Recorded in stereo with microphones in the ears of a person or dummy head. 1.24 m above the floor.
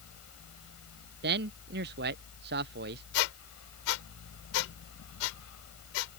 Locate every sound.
0.0 s a fan: 85° left
1.2 s a man speaking: 50° right (ahead or behind)
3.1 s a squeak: 80° left